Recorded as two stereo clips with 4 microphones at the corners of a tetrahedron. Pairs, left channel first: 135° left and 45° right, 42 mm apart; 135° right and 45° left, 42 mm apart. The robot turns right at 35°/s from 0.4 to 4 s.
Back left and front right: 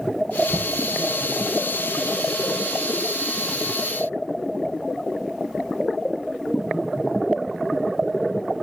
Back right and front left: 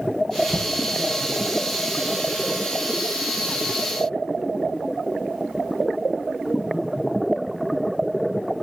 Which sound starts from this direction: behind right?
Knocking, at 0.5 s.